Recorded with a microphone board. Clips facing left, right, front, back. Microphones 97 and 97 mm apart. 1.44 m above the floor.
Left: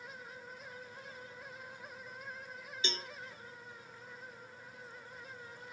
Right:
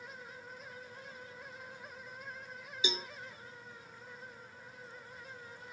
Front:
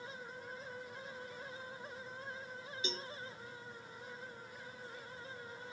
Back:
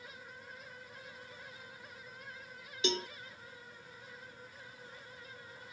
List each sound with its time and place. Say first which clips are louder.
2.8 s a cowbell: right 3 dB, back 10 dB; 170° right